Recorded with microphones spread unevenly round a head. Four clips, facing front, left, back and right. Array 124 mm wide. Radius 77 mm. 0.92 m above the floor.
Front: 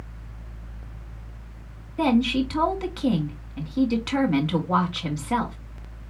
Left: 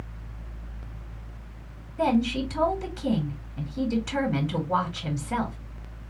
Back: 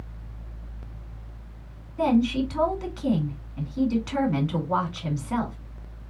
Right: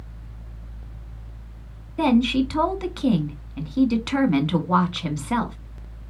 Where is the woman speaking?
40° right, 1.9 m.